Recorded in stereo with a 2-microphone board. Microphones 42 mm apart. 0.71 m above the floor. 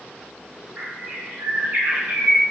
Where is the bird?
45° right (ahead or behind), 0.8 m.